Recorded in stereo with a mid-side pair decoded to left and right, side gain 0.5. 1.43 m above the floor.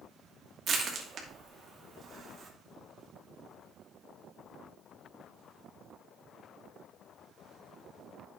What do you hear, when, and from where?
0.7 s crushing: 50° right, 2.5 m